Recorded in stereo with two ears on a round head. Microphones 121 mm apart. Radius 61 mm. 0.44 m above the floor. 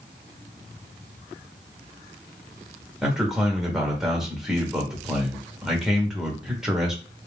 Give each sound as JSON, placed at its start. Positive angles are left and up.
{"t": 3.0, "sound": "a man speaking", "side_deg": -5, "distance_m": 1.1}